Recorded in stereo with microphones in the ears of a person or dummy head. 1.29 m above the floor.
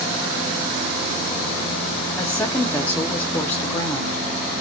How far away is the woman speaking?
About 0.7 m.